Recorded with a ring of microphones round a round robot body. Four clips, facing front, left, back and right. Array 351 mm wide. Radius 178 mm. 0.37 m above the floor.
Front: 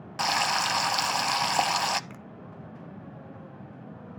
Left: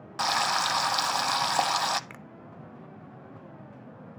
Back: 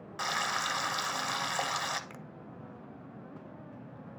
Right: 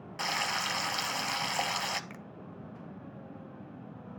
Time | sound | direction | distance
0.2 | frying | 40° left | 0.6 m
2.1 | a finger snap | 90° left | 0.6 m